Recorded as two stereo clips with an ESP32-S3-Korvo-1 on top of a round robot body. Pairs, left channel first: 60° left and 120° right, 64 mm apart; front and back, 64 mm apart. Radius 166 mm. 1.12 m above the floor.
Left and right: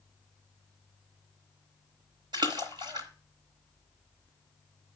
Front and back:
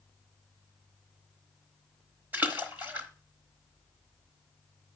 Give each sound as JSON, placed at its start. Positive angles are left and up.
{"t": 2.3, "sound": "a splash", "azimuth_deg": -120, "distance_m": 1.0}